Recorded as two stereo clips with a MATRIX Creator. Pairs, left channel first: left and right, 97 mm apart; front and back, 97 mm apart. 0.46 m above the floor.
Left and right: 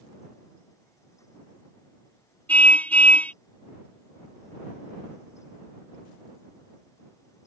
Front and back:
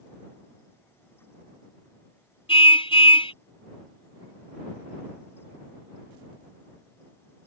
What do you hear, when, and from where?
2.5 s a car horn: 15° left